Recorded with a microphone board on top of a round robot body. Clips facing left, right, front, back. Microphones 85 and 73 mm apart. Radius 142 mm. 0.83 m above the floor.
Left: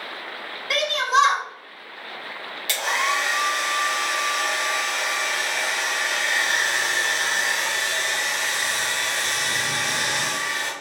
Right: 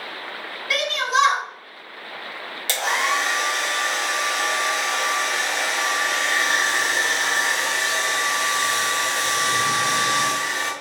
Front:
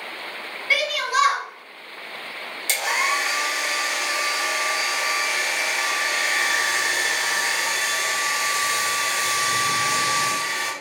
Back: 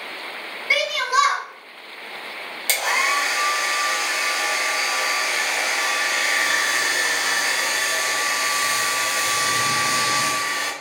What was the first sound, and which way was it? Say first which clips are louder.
A shout: left 1 dB, back 2 dB; 115° left.